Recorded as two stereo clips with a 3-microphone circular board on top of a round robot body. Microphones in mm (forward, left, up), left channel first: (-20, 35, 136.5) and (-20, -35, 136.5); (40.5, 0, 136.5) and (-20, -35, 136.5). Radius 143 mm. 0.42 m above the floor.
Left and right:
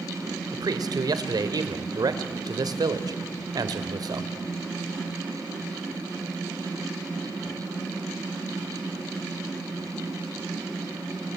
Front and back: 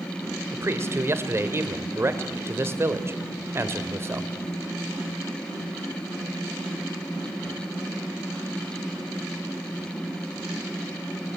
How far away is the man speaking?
About 2 m.